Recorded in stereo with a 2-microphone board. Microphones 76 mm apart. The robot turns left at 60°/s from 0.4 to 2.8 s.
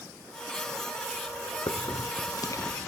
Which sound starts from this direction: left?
A hiss, at 1.7 s.